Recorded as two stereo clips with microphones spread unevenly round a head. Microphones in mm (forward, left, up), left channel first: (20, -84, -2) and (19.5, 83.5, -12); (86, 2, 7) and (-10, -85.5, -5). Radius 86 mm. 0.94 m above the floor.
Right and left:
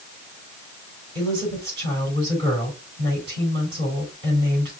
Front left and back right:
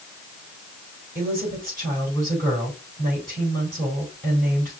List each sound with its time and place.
1.1 s a woman speaking: 130° left, 3.5 m